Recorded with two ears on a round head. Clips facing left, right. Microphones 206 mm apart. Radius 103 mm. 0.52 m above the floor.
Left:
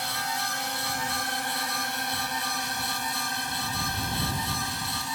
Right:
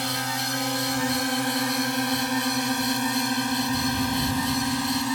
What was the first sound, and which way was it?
A drone, 60° right (ahead or behind).